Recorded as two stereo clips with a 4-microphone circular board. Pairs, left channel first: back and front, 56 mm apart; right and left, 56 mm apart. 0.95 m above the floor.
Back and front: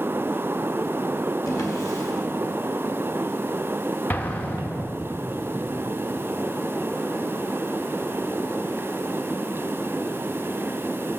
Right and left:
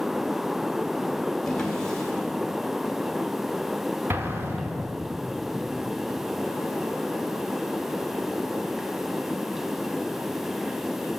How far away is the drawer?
About 1.5 m.